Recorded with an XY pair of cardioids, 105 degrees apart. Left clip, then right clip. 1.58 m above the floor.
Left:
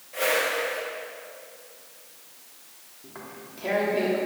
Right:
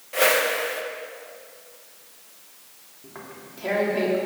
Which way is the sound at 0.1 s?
55° right.